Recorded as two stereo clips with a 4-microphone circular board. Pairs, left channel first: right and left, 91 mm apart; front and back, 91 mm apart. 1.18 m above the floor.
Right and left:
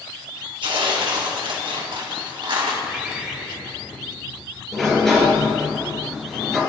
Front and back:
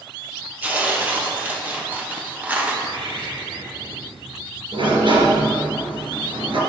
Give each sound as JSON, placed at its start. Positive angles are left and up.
{"t": 0.6, "sound": "tearing paper", "azimuth_deg": 110, "distance_m": 1.7}
{"t": 2.8, "sound": "a bird", "azimuth_deg": 170, "distance_m": 2.5}
{"t": 4.7, "sound": "a sliding door", "azimuth_deg": -175, "distance_m": 3.0}